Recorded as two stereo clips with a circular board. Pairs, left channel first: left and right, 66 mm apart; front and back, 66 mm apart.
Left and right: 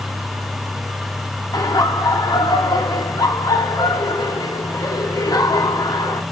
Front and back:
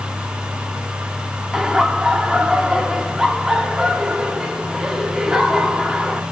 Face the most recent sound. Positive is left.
turn(degrees=100)